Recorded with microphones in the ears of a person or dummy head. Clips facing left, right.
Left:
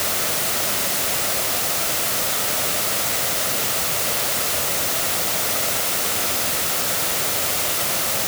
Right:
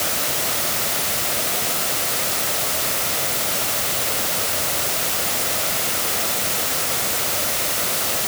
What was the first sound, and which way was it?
Only background noise.